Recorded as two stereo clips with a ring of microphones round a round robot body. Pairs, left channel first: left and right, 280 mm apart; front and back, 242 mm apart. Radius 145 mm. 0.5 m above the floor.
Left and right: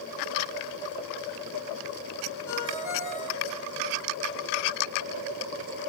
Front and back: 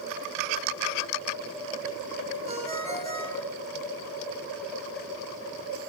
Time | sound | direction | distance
2.5 | a ringtone | 115° left | 5 m